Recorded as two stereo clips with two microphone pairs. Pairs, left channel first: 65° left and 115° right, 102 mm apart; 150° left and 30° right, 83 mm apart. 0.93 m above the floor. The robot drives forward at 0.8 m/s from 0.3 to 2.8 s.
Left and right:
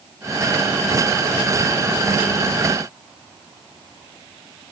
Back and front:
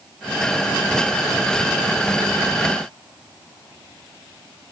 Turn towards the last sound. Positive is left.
No sound to turn to.